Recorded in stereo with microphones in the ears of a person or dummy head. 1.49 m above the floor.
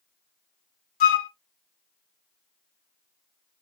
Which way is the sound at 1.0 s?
50° left (ahead or behind).